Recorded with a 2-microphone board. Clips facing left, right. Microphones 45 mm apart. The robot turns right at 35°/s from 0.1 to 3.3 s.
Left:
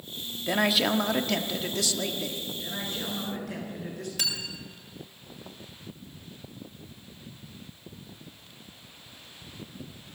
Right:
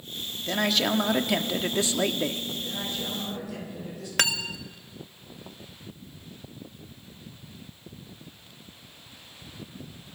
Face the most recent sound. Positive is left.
turn(degrees=-60)  # may be behind; listen again after turning